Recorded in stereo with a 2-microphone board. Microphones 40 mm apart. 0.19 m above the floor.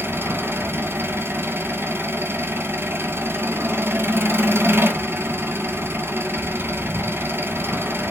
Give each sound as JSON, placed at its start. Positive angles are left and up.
{"t": 0.0, "sound": "an engine running", "side_deg": -80, "distance_m": 0.8}